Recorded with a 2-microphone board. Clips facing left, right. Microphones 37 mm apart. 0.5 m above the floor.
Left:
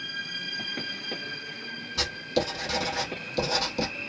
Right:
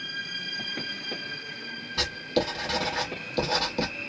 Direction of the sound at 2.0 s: 20° right (ahead or behind).